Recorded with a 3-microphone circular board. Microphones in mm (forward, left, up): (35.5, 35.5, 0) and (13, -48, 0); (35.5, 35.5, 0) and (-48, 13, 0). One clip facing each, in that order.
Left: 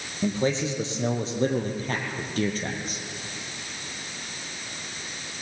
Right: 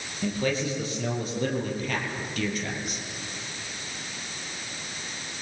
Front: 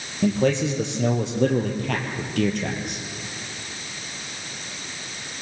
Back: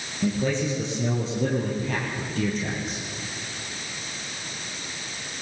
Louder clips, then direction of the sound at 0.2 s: Left 2 dB, front 4 dB; 10° left.